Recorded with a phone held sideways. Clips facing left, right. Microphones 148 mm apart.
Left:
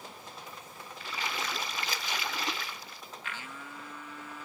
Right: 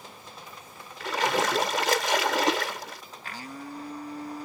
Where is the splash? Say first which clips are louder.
Right 12 dB; 85° right.